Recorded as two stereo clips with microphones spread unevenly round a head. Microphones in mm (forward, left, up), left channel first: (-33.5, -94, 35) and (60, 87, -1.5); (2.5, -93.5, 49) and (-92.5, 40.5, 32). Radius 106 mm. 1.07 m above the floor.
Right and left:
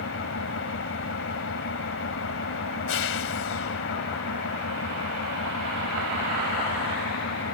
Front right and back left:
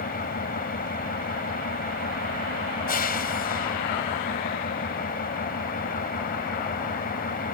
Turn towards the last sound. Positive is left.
turn(degrees=-90)